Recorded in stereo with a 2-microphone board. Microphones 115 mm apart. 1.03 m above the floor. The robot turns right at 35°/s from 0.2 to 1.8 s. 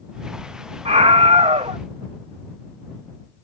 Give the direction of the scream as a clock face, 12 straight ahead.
4 o'clock.